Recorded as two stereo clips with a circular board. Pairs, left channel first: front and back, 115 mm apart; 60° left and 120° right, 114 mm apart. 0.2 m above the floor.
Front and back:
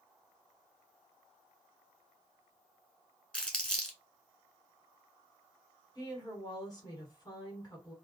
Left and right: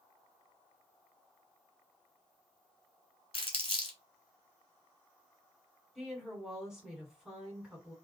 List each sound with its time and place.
3.3 s crumpling: 85° left, 0.9 m
6.0 s a woman speaking: 35° right, 1.5 m